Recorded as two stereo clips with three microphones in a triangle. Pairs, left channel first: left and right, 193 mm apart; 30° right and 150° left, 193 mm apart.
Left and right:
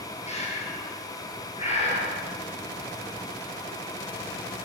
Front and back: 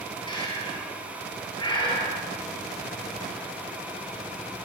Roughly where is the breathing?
Ahead left.